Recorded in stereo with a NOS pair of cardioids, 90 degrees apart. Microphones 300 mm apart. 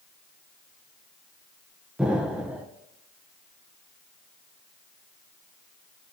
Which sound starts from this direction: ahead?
An explosion, at 2.0 s.